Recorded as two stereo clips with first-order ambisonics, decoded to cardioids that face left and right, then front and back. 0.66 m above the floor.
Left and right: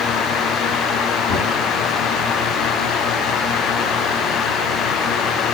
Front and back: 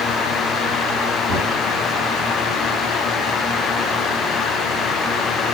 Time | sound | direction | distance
1.3 | knocking | 130° left | 6.5 m